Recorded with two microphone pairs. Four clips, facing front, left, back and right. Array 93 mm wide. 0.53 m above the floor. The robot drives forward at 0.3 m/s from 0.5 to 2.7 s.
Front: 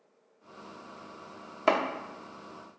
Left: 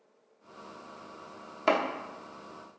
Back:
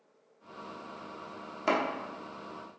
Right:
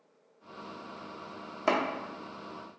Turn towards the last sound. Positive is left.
turn(degrees=-175)